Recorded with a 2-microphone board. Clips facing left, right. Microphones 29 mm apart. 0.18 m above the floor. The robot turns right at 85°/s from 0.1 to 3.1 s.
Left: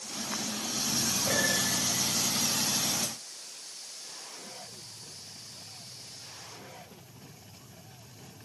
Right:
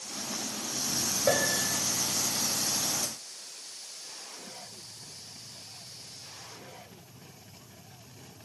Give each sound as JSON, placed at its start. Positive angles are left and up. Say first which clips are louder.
{"t": 1.3, "sound": "a piano", "louder": "right 3 dB", "azimuth_deg": -105, "distance_m": 5.5}